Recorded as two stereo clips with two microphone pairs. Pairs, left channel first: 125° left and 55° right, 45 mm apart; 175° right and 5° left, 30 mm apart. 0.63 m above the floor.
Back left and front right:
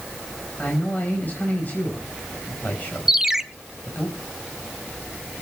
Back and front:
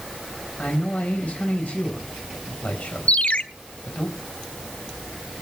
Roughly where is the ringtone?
Behind right.